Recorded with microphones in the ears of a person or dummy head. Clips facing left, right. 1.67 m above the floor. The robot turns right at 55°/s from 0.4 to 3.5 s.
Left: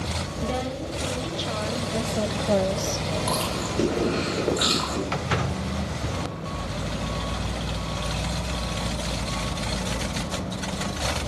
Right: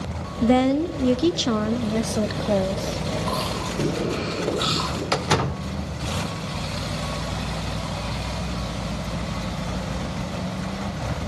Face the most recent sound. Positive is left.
turn(degrees=-60)  # may be behind; listen again after turning